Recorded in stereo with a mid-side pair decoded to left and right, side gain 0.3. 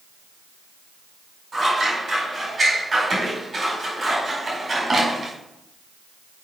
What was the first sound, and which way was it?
Scissors, 45° right.